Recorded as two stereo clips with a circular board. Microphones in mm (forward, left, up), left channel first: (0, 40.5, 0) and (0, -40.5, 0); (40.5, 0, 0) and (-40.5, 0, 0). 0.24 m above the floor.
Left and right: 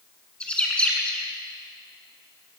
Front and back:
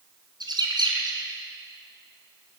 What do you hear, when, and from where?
0.4 s a bird: 165° left, 2 m